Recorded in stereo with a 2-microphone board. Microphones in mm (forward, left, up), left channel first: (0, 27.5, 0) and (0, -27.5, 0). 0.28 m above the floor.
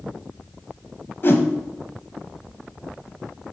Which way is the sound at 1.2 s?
45° left (ahead or behind).